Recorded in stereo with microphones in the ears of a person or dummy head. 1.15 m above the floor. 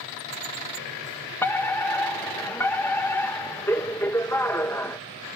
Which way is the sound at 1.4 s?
15° left (ahead or behind).